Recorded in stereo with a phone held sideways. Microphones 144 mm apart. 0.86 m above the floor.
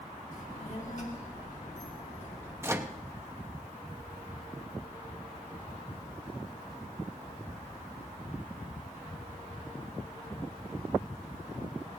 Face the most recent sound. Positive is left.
turn(degrees=-15)  # may be behind; listen again after turning